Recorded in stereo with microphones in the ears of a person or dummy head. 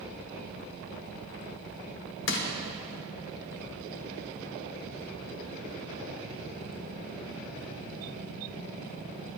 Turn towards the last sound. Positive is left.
turn(degrees=60)  # may be behind; listen again after turning